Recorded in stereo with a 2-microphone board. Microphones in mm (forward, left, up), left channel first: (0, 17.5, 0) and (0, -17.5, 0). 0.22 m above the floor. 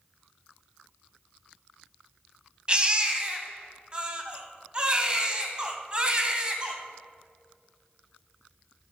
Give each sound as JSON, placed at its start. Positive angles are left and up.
{"t": 2.7, "sound": "a baby crying", "side_deg": -30, "distance_m": 0.9}